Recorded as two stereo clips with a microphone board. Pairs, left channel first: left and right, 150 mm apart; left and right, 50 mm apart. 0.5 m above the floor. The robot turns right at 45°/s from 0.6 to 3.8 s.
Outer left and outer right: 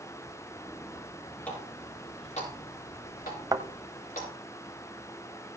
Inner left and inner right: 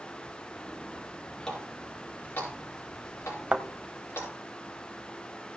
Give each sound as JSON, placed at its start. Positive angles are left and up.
{"t": 1.5, "sound": "a running tap", "side_deg": 10, "distance_m": 5.5}
{"t": 3.5, "sound": "a thud", "side_deg": -25, "distance_m": 0.9}